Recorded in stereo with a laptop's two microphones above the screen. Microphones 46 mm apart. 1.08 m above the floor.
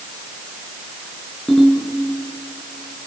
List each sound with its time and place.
1.5 s a ringtone: 5° left (ahead or behind), 6.5 m